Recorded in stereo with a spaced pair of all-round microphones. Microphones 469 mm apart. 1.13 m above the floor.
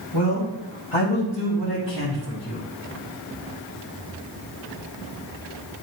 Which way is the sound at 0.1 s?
70° left (ahead or behind).